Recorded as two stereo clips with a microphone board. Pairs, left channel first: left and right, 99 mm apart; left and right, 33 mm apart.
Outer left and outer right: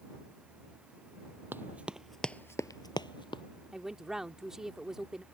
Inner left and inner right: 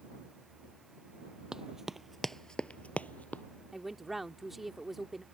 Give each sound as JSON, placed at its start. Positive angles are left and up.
{"t": 1.5, "sound": "running footsteps", "side_deg": -20}
{"t": 3.7, "sound": "a woman speaking", "side_deg": -5}